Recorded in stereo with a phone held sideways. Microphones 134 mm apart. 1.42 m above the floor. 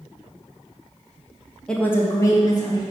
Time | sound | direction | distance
1.7 | a woman speaking | 5° left (ahead or behind) | 0.7 m